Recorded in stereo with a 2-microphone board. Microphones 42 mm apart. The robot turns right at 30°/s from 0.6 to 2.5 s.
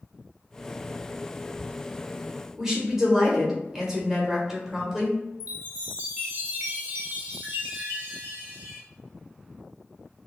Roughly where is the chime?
Right.